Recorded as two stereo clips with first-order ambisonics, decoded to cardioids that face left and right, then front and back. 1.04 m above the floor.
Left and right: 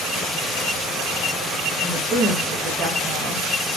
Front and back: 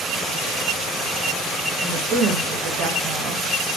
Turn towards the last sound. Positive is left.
turn(degrees=-135)